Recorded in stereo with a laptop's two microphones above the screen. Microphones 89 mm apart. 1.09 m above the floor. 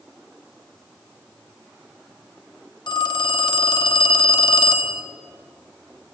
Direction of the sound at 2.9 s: 55° left (ahead or behind).